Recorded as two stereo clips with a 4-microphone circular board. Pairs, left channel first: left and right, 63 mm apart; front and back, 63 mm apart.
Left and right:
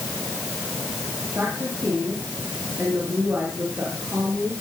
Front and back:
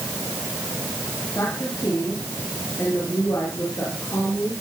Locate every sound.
1.4 s a woman speaking: 35° right, 7.5 m